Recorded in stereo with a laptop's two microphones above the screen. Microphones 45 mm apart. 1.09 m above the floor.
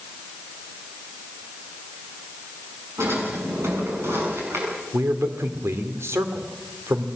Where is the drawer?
70° right (ahead or behind), 7.5 m.